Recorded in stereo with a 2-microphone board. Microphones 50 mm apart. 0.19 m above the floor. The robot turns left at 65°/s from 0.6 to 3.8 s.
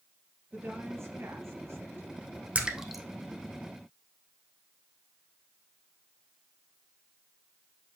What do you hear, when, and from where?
0.5 s a woman speaking: 40° right, 3.5 m; by 2.5 s 160° right, 3.5 m
2.5 s a splash: 25° right (ahead or behind), 1.3 m; by 3.0 s 5° left (ahead or behind), 1.3 m